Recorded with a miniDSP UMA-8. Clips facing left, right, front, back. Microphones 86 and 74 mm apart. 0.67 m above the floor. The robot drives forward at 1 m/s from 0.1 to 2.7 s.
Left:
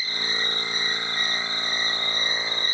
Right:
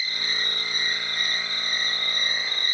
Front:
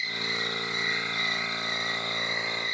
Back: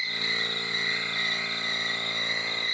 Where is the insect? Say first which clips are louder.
Left 2 dB, even; 140° left, 9 m; by 2.8 s 150° left, 11 m.